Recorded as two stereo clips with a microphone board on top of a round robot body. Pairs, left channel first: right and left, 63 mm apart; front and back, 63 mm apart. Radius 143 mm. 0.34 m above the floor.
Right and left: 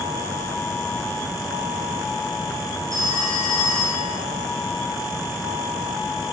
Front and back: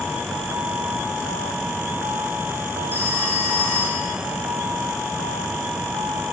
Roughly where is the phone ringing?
Behind left.